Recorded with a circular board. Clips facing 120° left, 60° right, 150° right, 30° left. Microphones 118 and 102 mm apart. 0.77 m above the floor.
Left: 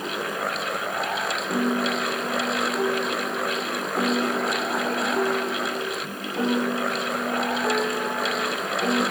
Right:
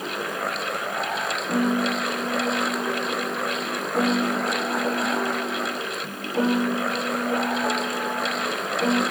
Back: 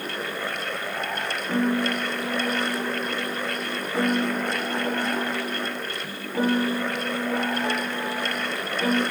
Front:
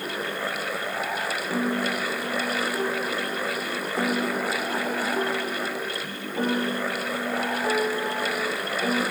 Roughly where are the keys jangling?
No keys jangling in this recording.